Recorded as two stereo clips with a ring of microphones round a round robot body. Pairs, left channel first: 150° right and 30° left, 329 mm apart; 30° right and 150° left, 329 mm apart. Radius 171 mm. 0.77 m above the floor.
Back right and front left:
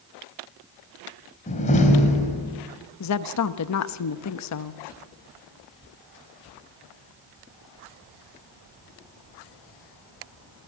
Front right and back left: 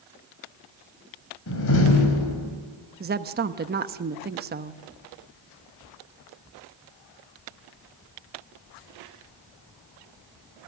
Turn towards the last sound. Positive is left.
turn(degrees=-155)